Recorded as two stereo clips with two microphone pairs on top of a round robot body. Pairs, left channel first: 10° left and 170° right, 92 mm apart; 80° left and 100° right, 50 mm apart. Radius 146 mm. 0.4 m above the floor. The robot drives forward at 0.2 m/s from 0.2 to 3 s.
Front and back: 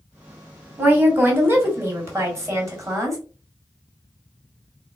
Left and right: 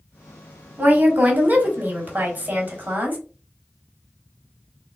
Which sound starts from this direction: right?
A woman speaking, at 0.8 s.